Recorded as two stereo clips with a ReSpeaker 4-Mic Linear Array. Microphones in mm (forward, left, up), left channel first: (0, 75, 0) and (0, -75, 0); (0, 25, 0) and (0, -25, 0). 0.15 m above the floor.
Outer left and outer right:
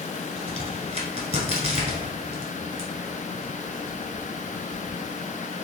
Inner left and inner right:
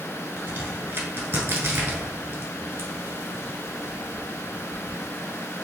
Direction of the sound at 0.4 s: 45° right (ahead or behind).